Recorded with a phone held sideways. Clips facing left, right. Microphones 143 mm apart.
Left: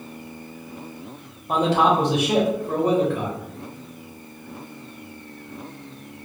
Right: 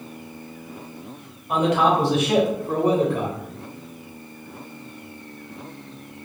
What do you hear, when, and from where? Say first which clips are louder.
1.5 s a man speaking: even; 35° left (ahead or behind), 1.1 m; by 3.4 s 35° right (ahead or behind), 0.9 m